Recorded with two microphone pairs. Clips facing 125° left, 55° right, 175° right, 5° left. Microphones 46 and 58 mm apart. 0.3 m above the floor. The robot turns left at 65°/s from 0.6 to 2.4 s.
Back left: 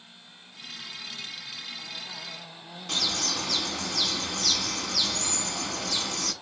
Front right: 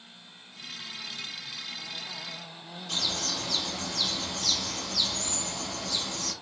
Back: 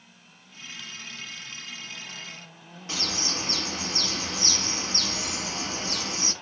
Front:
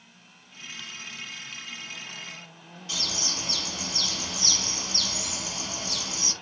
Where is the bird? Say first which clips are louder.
Back left 2 dB, back 3 dB; 145° left, 0.9 m.